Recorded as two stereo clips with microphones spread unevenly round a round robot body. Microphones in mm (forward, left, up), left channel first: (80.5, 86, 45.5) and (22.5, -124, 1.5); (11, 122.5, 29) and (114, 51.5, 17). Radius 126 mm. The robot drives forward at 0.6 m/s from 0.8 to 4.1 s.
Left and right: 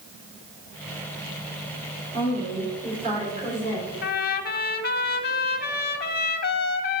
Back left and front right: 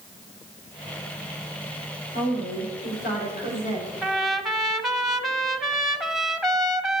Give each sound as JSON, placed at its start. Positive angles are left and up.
{"t": 2.1, "sound": "a woman speaking", "azimuth_deg": -170, "distance_m": 2.5}
{"t": 4.0, "sound": "a trumpet", "azimuth_deg": 55, "distance_m": 0.7}